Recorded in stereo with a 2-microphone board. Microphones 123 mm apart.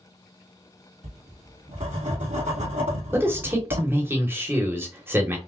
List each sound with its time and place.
1.0 s writing: 90° right, 1.8 m
3.1 s a man speaking: 20° right (ahead or behind), 1.0 m